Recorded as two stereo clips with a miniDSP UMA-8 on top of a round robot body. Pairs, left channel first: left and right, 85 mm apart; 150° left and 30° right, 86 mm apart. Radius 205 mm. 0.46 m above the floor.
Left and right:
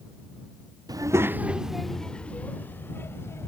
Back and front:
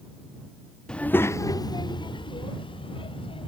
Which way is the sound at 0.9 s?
130° right.